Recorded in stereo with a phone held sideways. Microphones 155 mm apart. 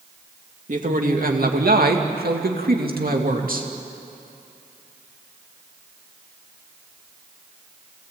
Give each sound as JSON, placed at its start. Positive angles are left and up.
{"t": 0.7, "sound": "a man speaking", "side_deg": -55, "distance_m": 2.5}